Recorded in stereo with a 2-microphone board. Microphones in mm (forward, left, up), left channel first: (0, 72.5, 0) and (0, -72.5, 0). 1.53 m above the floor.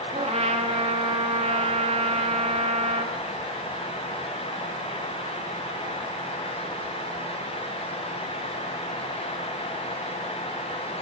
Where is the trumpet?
40° right (ahead or behind), 2 m.